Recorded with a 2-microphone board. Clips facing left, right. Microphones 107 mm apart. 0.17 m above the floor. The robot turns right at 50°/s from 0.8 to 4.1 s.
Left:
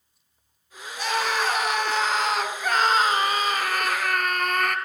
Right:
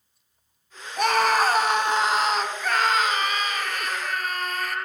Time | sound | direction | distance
1.0 | a scream | 70° right | 4 m